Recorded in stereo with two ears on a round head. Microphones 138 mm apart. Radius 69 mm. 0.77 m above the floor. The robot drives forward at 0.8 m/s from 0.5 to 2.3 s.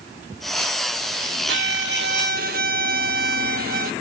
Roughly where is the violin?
Right.